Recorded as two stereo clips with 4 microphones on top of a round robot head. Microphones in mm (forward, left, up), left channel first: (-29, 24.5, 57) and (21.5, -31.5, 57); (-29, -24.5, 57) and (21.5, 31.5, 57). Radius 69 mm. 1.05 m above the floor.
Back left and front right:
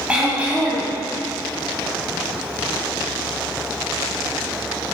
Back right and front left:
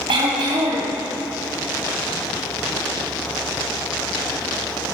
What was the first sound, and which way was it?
Throat clearing, 30° left.